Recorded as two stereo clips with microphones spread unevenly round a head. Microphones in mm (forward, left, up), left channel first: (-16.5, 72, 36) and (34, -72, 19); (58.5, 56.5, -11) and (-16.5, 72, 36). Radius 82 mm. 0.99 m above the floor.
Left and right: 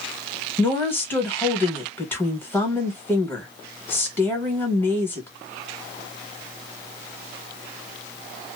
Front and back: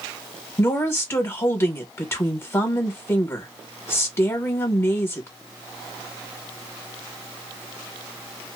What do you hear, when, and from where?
0.6 s a woman speaking: 30° left, 1.2 m